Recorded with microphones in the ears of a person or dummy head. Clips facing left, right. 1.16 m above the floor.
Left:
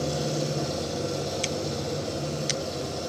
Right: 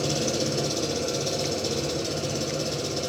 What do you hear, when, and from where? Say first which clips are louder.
0.0 s an engine running: right 2 dB; 40° right (ahead or behind), 2 m